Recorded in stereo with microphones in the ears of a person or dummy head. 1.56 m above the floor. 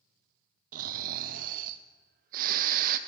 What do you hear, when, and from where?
0.7 s snoring: 45° right (ahead or behind), 0.5 m